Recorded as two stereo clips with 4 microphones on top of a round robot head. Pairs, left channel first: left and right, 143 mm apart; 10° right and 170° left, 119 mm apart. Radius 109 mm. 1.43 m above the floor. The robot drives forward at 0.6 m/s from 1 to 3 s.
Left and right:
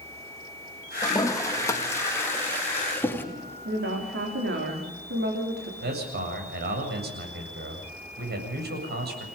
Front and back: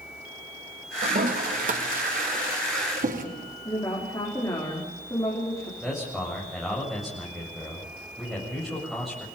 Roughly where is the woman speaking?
Right.